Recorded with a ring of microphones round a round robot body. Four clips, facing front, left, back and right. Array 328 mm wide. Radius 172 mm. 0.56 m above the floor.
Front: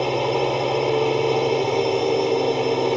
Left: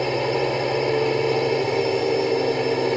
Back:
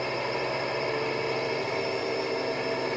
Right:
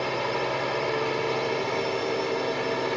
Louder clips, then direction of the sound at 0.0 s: Left 5 dB, front 9 dB; 40° left.